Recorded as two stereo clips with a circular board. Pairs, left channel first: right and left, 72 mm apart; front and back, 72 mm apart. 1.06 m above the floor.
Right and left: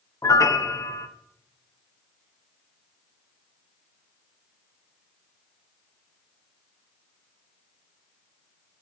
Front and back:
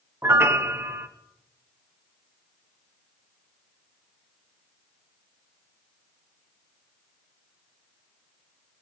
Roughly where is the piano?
Behind right.